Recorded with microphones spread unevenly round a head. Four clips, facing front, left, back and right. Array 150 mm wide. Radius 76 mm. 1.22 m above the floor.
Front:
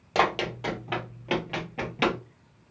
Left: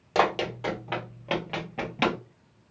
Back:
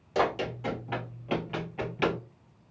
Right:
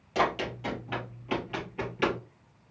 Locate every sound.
0.1 s running footsteps: 40° left, 2.5 m; by 2.2 s 75° left, 1.9 m